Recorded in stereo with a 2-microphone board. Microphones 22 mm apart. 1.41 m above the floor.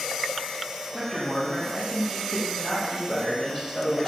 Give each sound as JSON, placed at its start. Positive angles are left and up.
{"t": 0.9, "sound": "a man speaking", "side_deg": 0, "distance_m": 1.4}